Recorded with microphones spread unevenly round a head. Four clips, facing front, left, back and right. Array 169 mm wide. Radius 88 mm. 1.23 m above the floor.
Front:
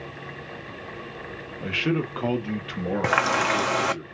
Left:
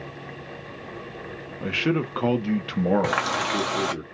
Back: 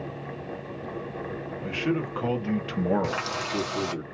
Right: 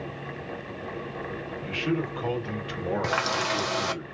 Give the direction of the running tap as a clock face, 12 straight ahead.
12 o'clock.